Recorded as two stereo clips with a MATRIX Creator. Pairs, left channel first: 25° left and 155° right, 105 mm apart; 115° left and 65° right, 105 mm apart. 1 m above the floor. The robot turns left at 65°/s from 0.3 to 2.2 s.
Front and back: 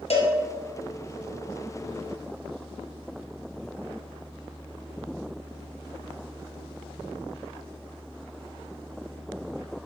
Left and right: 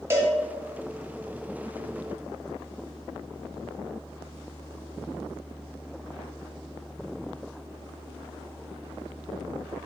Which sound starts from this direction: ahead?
A cowbell, at 0.1 s.